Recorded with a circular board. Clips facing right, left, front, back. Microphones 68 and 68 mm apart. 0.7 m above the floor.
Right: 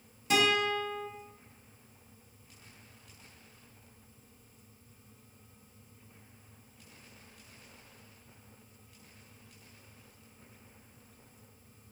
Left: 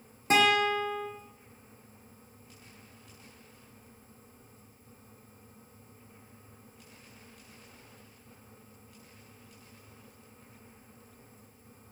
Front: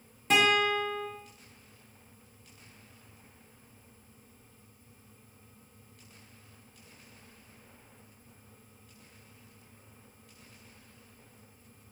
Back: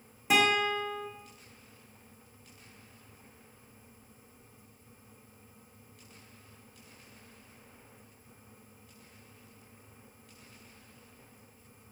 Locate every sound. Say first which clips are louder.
0.3 s a guitar: left 4 dB, front 1 dB; 100° left, 1.3 m